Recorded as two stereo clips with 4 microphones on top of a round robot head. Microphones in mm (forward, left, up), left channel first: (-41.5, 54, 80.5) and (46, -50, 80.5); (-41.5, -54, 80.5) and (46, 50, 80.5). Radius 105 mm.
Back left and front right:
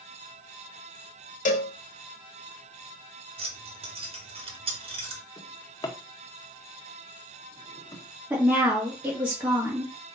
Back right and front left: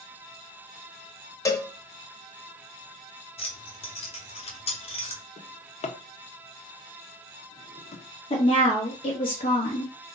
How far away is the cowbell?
About 0.9 m.